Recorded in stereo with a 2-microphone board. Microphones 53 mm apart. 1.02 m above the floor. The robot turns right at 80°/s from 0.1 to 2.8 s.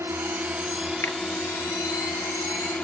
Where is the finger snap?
65° left (ahead or behind); by 1.2 s 75° left (ahead or behind).